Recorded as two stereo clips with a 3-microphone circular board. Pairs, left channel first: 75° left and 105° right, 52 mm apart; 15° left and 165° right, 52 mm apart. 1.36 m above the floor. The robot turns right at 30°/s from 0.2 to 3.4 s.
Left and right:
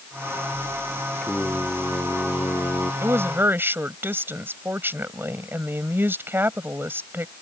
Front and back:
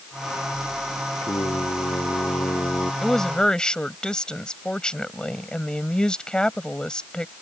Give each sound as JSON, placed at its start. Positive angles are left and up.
{"t": 1.2, "sound": "singing", "azimuth_deg": 5}
{"t": 3.0, "sound": "a woman speaking", "azimuth_deg": -75}